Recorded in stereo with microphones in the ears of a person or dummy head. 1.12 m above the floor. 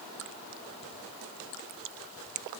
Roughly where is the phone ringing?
I don't hear a phone ringing.